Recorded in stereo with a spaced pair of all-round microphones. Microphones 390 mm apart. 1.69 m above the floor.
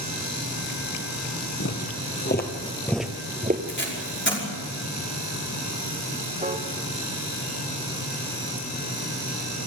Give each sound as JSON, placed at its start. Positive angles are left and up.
{"t": 1.6, "sound": "footsteps", "side_deg": 45, "distance_m": 2.5}
{"t": 3.7, "sound": "tape being pulled", "side_deg": 30, "distance_m": 5.5}
{"t": 6.4, "sound": "a piano", "side_deg": -20, "distance_m": 1.7}